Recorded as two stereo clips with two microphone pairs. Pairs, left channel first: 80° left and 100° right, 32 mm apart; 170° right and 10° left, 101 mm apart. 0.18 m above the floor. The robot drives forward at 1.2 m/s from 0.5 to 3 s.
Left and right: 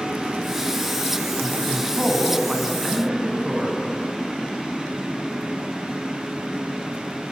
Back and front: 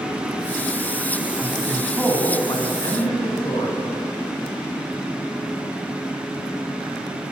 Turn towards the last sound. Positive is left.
turn(degrees=-175)